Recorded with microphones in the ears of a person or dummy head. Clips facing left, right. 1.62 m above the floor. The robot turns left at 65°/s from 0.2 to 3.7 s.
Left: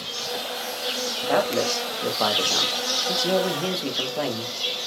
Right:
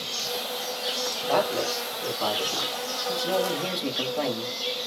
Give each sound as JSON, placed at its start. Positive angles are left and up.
{"t": 0.0, "sound": "an insect", "azimuth_deg": -125, "distance_m": 1.3}
{"t": 1.2, "sound": "a man speaking", "azimuth_deg": 170, "distance_m": 1.3}